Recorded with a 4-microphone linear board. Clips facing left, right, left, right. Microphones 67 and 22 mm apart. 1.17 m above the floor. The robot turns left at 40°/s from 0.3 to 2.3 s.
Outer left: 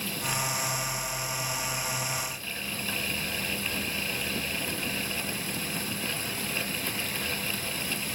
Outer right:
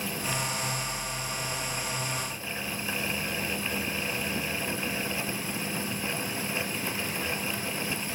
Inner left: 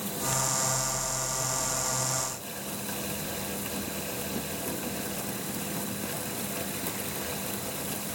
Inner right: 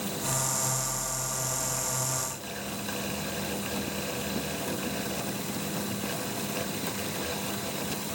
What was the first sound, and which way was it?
Only background noise.